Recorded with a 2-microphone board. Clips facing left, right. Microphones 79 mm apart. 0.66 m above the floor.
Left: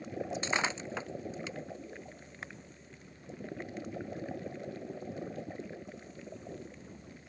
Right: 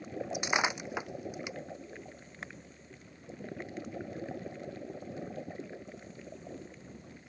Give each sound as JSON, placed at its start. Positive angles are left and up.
{"t": 0.3, "sound": "breaking glass", "side_deg": -15}